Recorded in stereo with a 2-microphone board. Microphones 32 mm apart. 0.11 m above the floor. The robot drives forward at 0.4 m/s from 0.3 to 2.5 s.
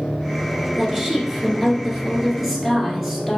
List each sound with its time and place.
0.8 s a woman speaking: 15° right (ahead or behind), 1.2 m; by 3.4 s 10° right (ahead or behind), 1.6 m